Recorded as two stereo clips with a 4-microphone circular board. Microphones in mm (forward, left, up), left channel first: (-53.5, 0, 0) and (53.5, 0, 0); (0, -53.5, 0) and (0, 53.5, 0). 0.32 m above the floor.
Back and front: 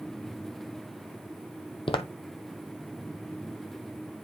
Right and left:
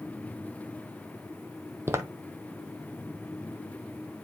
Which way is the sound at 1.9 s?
155° left.